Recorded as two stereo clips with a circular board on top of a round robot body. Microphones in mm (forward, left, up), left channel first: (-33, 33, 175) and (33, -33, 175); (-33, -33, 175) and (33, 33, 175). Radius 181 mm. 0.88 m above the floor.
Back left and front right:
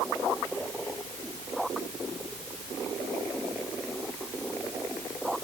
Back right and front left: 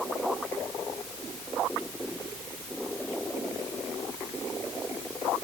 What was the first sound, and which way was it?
Only background noise.